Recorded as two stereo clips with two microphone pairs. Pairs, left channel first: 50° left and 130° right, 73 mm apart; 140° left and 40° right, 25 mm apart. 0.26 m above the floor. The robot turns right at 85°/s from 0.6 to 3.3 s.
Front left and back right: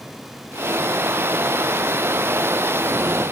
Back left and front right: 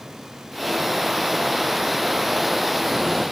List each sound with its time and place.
Only background noise.